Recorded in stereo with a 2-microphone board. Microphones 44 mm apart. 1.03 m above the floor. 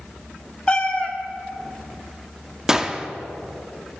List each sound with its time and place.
0.7 s a cat meowing: 20° left (ahead or behind), 1.0 m
2.7 s a gunshot: 15° right (ahead or behind), 0.5 m